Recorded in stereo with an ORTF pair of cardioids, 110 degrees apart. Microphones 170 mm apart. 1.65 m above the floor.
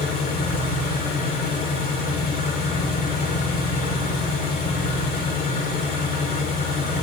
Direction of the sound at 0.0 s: 60° left.